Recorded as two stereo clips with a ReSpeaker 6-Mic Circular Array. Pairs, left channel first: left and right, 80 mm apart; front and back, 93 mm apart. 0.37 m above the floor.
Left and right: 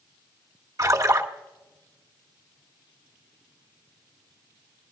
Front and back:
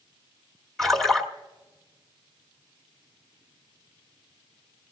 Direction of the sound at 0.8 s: 85° right.